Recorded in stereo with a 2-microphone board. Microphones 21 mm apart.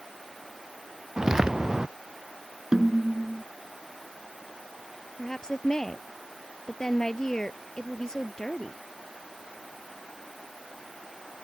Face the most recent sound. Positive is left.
turn(degrees=35)  # may be behind; listen again after turning